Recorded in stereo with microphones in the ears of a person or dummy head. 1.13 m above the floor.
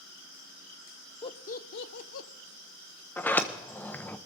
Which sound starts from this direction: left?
Laughter, at 1.2 s.